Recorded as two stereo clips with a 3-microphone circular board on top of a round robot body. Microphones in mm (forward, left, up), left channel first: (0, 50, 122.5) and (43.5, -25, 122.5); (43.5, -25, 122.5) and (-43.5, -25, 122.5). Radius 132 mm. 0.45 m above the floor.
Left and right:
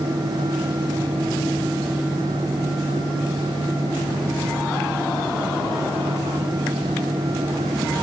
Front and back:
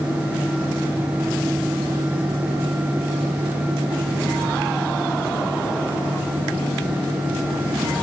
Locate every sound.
Only background noise.